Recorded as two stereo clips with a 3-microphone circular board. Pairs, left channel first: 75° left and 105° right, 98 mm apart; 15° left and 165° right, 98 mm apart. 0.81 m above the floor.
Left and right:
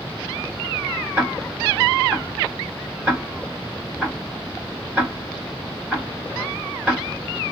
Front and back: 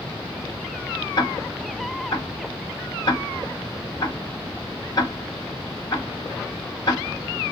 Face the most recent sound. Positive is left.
turn(degrees=-30)